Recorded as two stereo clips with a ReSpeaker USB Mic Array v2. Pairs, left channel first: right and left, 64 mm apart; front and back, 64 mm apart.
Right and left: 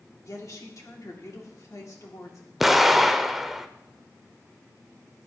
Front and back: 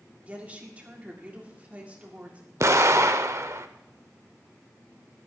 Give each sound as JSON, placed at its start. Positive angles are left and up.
{"t": 0.2, "sound": "a woman speaking", "azimuth_deg": -115, "distance_m": 2.0}
{"t": 2.6, "sound": "an explosion", "azimuth_deg": 175, "distance_m": 0.5}